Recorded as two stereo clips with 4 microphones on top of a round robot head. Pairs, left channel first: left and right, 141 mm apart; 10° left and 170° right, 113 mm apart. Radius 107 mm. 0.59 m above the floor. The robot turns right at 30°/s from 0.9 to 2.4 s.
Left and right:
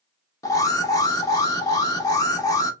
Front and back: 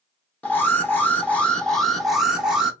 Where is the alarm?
65° left, 1.2 m; by 2.7 s 110° left, 1.2 m.